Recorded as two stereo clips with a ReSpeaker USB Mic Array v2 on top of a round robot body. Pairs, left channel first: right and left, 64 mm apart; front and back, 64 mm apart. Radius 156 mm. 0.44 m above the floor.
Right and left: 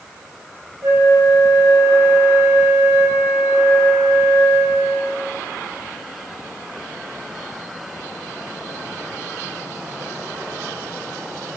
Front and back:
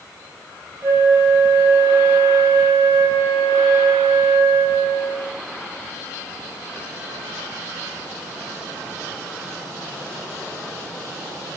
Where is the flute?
130° left, 3 m.